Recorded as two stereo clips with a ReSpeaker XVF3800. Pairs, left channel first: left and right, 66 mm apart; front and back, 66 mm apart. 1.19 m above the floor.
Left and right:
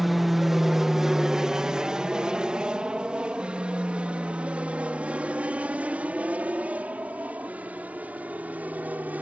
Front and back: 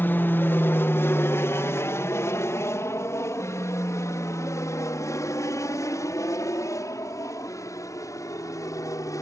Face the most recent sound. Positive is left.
turn(degrees=-25)